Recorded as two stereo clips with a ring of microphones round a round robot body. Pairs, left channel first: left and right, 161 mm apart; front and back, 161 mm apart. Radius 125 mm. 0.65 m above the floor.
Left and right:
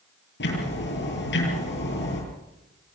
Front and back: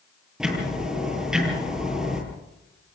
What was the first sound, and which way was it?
Ticking, 95° left.